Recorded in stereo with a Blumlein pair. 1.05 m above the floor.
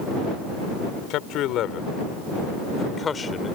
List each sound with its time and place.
1.1 s a man speaking: 40° left; by 3.6 s 15° left